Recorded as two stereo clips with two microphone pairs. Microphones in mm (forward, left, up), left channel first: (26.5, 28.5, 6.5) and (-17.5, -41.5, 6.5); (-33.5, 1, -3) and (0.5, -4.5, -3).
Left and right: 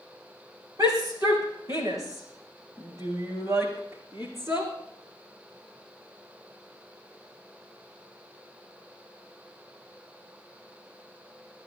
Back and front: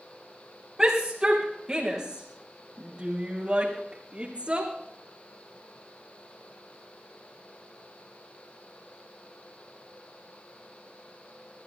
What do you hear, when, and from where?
0.8 s a shout: 85° right, 7 m; by 4.7 s 65° right, 6.5 m